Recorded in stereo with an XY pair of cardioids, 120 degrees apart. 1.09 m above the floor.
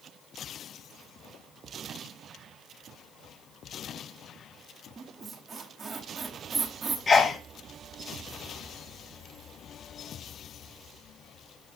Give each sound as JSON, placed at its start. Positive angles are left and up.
{"t": 5.0, "sound": "a squeak", "azimuth_deg": -25, "distance_m": 1.4}
{"t": 7.1, "sound": "a sneeze", "azimuth_deg": 30, "distance_m": 0.6}